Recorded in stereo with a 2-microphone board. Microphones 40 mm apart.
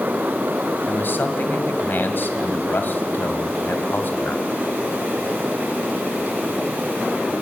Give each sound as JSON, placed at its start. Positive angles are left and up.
{"t": 0.9, "sound": "a man speaking", "side_deg": 55, "distance_m": 2.0}